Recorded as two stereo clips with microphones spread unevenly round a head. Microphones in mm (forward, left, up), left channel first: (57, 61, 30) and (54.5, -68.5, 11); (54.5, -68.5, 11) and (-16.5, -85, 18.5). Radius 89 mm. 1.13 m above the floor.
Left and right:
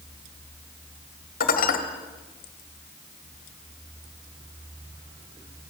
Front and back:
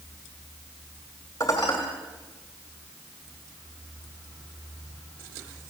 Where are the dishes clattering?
85° left, 2 m.